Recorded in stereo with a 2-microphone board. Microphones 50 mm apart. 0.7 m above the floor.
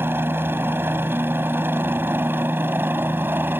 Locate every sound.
0.0 s a helicopter: 45° right (ahead or behind)